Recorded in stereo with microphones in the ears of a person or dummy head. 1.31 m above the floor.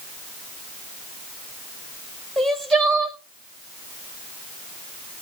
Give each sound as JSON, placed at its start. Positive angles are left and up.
{"t": 2.4, "sound": "crying", "side_deg": 5, "distance_m": 1.2}